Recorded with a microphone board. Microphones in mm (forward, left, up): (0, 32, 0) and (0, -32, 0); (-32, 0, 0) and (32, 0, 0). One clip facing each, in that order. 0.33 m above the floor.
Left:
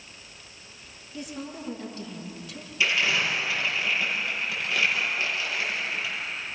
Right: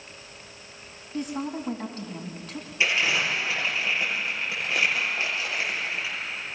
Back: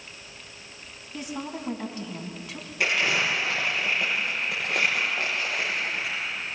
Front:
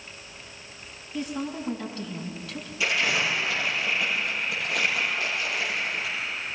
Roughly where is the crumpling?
Behind right.